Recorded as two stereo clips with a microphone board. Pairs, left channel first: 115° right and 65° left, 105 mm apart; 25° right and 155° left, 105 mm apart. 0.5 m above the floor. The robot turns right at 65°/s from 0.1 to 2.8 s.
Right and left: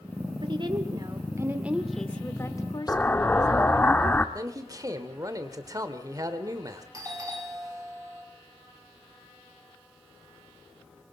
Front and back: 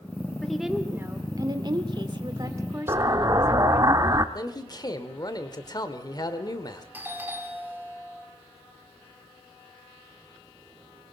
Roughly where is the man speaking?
Ahead.